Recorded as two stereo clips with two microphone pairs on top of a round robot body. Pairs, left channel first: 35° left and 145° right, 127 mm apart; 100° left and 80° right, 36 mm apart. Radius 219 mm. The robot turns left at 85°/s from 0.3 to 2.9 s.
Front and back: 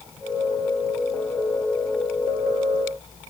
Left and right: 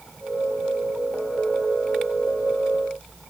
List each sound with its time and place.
Only background noise.